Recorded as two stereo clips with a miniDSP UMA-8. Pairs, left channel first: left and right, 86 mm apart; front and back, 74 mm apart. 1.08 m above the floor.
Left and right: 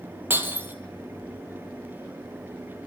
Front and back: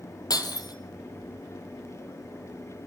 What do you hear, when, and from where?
0.3 s breaking glass: 25° right, 3 m